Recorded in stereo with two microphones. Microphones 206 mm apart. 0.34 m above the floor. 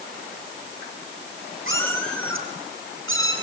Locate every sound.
1.7 s a cat meowing: 75° right (ahead or behind), 3.5 m; by 3.3 s 80° right, 5.5 m